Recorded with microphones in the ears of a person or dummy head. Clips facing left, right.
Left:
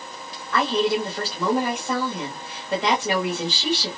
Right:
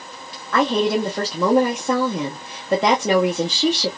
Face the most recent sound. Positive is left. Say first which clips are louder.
# right 3 dB
turn(degrees=-50)  # may be behind; listen again after turning